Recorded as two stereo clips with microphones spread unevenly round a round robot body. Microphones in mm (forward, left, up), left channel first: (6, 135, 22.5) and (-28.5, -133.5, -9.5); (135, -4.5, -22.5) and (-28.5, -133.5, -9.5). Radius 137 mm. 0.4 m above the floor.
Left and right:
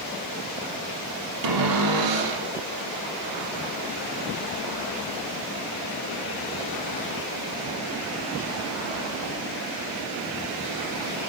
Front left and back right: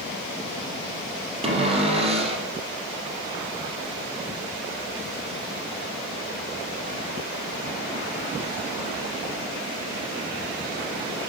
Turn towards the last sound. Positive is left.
turn(degrees=-80)